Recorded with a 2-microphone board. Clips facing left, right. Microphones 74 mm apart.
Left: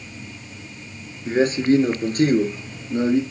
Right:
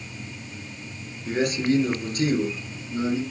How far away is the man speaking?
About 2 m.